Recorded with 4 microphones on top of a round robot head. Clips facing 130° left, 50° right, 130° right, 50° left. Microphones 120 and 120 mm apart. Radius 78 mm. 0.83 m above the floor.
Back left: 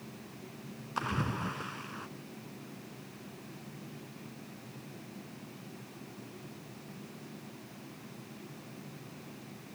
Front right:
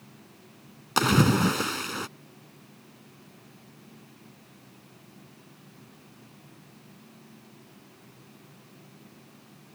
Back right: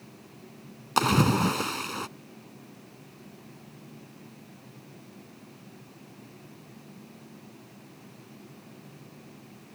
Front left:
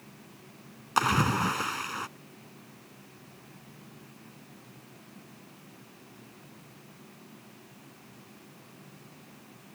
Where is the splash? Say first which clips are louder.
Front right 13 dB, back right 3 dB; 65° right.